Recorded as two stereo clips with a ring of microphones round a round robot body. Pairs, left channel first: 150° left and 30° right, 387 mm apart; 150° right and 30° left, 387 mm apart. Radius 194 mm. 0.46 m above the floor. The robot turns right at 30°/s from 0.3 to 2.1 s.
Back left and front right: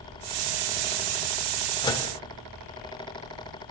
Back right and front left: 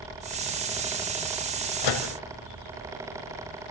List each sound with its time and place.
1.8 s a microwave: 135° right, 2.5 m; by 2.1 s 125° right, 2.5 m